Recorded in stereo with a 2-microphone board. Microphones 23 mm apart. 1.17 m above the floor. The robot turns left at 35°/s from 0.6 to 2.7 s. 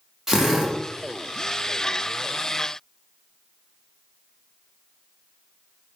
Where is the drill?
15° right (ahead or behind), 0.9 m; by 0.8 s 20° right (ahead or behind), 0.9 m.